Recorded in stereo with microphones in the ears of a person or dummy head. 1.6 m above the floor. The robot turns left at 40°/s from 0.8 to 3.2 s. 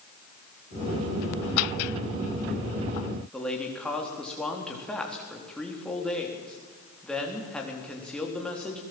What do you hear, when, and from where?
3.3 s a man speaking: 5° left (ahead or behind), 3.5 m